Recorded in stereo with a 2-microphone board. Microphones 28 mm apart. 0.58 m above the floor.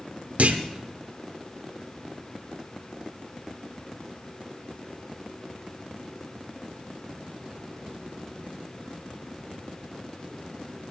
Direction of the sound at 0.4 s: 70° right (ahead or behind).